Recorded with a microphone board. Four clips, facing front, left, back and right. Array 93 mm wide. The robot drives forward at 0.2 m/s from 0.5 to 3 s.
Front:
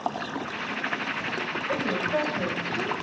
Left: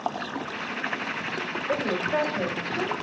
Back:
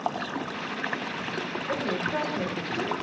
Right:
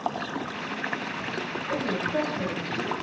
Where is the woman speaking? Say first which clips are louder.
Left 2 dB, front 2 dB; 115° left, 3 m.